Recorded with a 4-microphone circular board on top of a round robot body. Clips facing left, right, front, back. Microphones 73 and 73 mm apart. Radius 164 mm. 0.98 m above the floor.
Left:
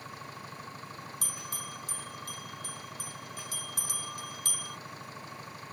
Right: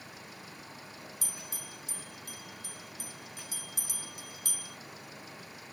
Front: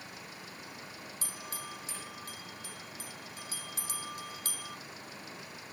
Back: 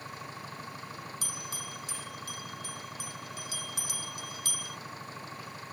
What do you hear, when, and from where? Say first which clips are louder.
0.0 s an engine running: left 5 dB, back 5 dB; 130° left
1.2 s a bell: left 5 dB, back 2 dB; 55° left